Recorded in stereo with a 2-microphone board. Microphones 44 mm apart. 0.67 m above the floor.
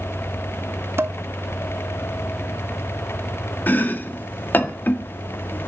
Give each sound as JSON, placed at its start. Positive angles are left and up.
{"t": 1.0, "sound": "dishes clattering", "side_deg": -60, "distance_m": 0.7}
{"t": 3.7, "sound": "chopping", "side_deg": 45, "distance_m": 1.6}